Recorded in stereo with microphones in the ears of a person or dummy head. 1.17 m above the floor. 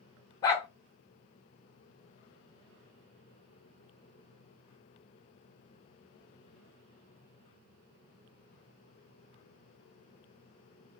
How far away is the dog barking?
About 0.6 m.